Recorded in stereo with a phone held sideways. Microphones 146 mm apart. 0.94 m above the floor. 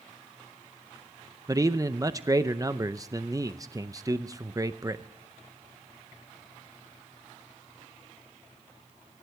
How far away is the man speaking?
About 0.6 m.